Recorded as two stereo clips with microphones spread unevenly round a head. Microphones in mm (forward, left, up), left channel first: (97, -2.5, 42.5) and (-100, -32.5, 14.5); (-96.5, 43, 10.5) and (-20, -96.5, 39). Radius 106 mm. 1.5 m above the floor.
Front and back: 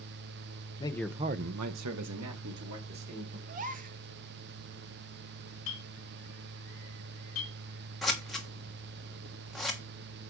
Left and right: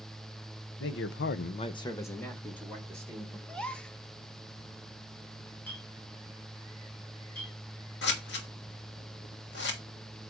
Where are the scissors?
90° left, 1.3 m.